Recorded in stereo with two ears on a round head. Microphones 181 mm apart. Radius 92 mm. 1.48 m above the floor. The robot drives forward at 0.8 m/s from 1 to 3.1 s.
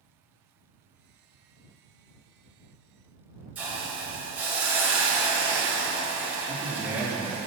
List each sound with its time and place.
3.5 s a hiss: 10° right (ahead or behind), 1.4 m
6.5 s a man speaking: 5° right (ahead or behind), 1.6 m